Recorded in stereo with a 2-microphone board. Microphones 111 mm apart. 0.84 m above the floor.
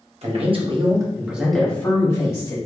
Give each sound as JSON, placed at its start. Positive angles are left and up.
{"t": 0.2, "sound": "a man speaking", "side_deg": -60, "distance_m": 1.1}